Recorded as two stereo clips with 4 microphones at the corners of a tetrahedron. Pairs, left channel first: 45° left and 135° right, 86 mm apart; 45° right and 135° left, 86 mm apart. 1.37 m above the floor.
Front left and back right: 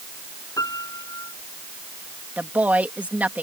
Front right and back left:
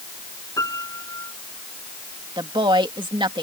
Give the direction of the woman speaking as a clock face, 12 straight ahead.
7 o'clock.